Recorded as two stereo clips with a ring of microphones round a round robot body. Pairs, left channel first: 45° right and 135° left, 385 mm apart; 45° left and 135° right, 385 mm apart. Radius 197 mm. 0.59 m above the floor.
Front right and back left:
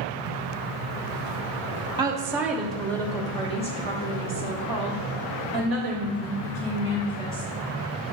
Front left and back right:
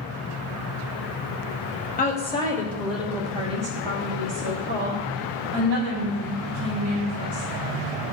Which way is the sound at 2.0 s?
75° left.